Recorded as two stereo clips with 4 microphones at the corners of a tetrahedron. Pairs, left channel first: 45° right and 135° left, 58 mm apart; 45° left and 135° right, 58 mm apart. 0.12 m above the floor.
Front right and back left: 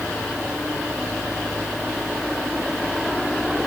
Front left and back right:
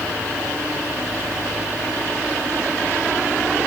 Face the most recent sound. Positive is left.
No sound to turn to.